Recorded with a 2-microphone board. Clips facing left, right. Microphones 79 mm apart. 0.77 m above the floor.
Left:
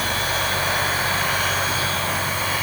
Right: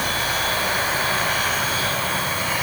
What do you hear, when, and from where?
Only background noise.